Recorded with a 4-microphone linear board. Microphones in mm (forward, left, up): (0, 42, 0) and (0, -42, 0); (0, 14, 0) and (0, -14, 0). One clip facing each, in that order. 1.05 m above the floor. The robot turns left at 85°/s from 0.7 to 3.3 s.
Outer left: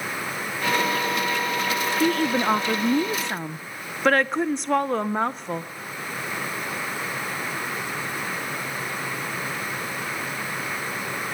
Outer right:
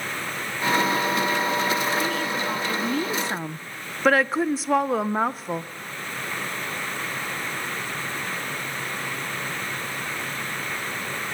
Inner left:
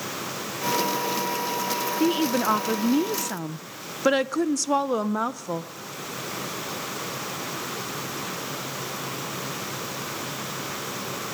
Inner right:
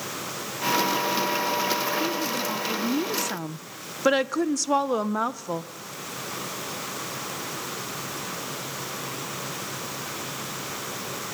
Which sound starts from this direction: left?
A woman speaking, at 2.0 s.